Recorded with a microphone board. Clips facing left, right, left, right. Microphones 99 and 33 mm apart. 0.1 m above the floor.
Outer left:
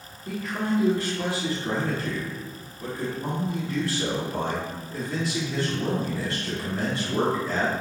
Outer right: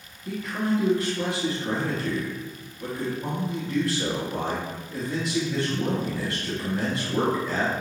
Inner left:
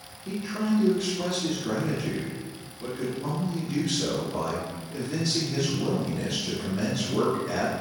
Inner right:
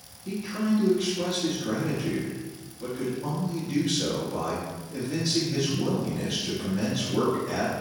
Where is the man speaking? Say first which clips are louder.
Outer right 1 dB, even; centre (ahead or behind), 1.3 m.